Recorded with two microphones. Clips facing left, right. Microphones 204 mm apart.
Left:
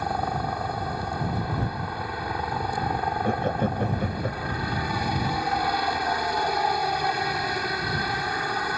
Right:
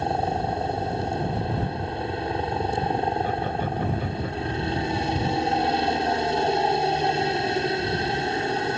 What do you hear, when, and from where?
0.0 s a helicopter: 25° right (ahead or behind)
3.2 s laughter: 45° left (ahead or behind)